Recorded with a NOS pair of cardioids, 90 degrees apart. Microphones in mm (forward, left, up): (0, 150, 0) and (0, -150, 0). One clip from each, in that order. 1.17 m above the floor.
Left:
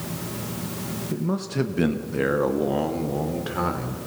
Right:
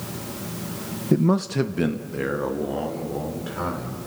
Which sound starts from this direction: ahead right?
A man speaking, at 1.1 s.